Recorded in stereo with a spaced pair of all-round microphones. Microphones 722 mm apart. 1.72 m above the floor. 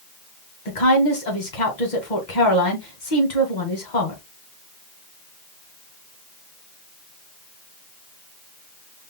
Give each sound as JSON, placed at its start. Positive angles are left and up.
{"t": 0.7, "sound": "a woman speaking", "side_deg": 75, "distance_m": 1.9}